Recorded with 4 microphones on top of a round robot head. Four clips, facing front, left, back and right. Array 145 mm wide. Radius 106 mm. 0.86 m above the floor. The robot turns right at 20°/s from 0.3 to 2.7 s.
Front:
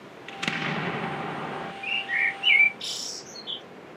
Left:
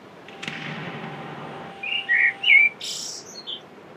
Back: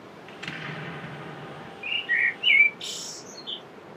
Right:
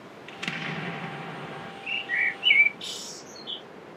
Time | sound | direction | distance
0.3 | an explosion | straight ahead | 0.5 m
1.8 | a bird | 70° left | 1.1 m